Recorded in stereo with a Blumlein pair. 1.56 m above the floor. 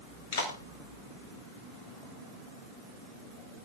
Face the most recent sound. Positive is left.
turn(degrees=55)